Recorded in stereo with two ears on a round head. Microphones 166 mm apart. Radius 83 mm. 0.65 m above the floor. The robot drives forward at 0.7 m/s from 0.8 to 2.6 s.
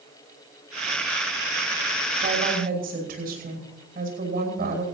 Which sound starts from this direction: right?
A woman speaking, at 2.2 s.